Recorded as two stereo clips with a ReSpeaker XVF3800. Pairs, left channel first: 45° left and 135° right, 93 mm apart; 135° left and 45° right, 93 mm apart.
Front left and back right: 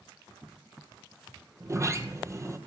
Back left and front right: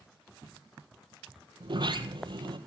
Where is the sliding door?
80° right, 2.0 m.